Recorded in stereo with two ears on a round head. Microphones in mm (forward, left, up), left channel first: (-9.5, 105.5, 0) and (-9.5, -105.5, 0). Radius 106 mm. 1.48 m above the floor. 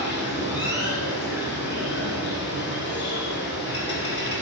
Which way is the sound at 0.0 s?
50° left (ahead or behind).